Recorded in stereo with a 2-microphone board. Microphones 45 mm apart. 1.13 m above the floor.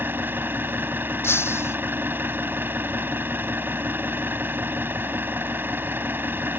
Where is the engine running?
50° right (ahead or behind).